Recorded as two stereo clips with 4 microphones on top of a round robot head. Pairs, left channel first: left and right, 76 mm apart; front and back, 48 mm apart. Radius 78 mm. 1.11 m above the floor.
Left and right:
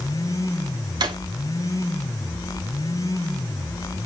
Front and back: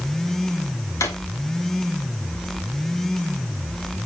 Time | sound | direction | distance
1.0 | a drawer | 45° right | 1.0 m